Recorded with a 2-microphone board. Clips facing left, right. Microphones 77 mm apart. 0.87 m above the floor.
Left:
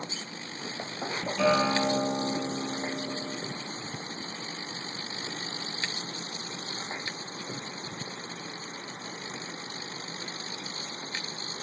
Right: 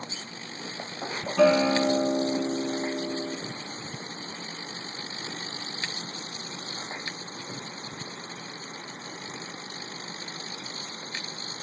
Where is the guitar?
75° right (ahead or behind), 0.6 m.